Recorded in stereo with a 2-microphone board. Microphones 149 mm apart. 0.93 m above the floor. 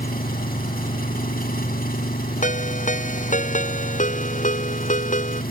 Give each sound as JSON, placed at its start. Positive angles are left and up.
{"t": 0.0, "sound": "an engine running", "side_deg": 80}
{"t": 2.4, "sound": "a ringtone", "side_deg": 60}